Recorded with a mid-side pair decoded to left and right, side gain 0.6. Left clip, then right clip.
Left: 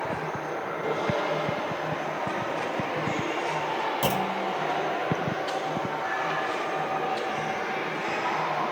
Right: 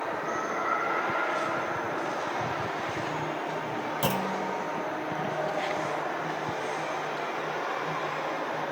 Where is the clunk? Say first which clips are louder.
Left 2 dB; 5° left, 0.7 m.